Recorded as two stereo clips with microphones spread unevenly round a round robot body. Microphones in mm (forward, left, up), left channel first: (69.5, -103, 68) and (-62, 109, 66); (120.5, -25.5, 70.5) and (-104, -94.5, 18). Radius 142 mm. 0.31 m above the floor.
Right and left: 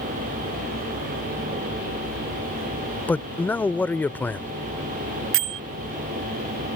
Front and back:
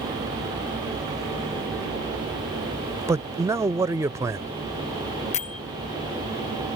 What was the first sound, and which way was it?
A man speaking, 135° right.